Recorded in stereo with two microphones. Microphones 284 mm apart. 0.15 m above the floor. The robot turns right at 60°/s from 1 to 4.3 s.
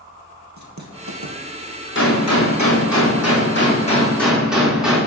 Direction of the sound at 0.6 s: 75° right (ahead or behind).